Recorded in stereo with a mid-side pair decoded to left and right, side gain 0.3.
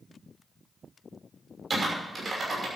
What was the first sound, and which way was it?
Typing on a keyboard, 50° right.